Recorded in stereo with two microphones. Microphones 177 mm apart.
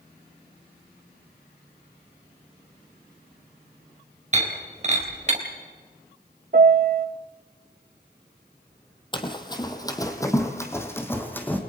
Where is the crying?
I don't hear crying.